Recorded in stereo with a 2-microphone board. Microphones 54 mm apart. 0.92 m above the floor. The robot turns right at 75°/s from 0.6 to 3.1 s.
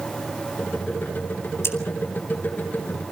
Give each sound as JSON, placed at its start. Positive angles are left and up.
{"t": 1.6, "sound": "scissors", "side_deg": 55, "distance_m": 3.0}